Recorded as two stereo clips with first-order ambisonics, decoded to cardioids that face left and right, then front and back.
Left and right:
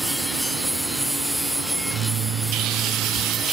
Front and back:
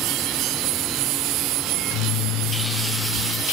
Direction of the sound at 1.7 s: 30° right.